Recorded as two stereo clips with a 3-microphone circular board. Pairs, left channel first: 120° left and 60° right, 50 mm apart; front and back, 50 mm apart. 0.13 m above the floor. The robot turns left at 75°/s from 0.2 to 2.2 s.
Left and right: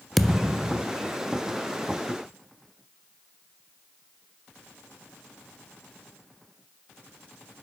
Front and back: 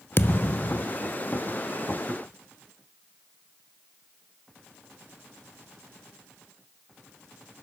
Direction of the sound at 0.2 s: 35° left.